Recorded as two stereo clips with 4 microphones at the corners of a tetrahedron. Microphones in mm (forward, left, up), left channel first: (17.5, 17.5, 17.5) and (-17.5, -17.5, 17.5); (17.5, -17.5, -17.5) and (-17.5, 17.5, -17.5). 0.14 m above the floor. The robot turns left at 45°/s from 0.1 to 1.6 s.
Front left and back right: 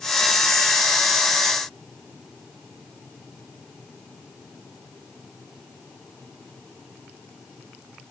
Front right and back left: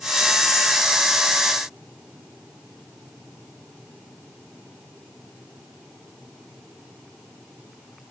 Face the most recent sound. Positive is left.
No sound to turn to.